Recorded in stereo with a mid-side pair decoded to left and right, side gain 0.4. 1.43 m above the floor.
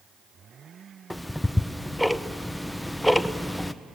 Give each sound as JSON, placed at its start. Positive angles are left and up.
{"t": 1.1, "sound": "ticking", "azimuth_deg": 5, "distance_m": 0.7}